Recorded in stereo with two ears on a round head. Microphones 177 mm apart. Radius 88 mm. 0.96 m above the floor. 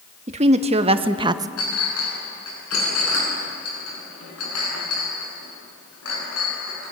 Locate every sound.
0.3 s a woman speaking: 35° right (ahead or behind), 1.6 m; by 1.5 s 15° right (ahead or behind), 0.6 m
1.6 s a clink: 85° left, 8 m